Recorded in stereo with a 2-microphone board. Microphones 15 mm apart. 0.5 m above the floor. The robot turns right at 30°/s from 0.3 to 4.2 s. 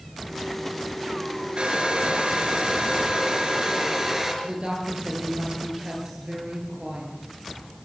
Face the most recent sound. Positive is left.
turn(degrees=-70)  # may be behind; listen again after turning